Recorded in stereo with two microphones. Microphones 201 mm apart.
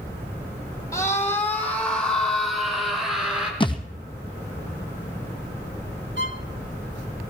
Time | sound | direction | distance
0.9 | a scream | 15° left (ahead or behind) | 3 m
3.6 | a thud | 25° left (ahead or behind) | 1.3 m
6.2 | a violin | 65° right (ahead or behind) | 1.2 m